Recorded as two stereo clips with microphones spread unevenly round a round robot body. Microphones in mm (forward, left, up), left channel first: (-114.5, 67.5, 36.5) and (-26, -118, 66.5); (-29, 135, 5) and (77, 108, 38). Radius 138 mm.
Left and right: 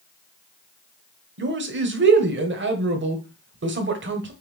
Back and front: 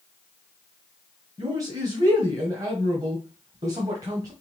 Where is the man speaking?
90° right, 1.7 m.